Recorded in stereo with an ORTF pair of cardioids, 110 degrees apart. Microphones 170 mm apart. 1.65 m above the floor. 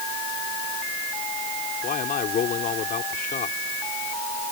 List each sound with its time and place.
1.8 s a man speaking: 55° left